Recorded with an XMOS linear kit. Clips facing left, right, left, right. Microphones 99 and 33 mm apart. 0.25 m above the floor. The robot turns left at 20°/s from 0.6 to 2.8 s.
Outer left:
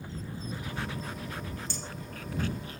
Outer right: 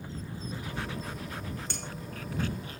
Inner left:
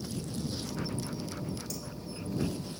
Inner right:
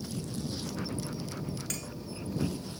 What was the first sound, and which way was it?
Cutlery clinking, 70° right (ahead or behind).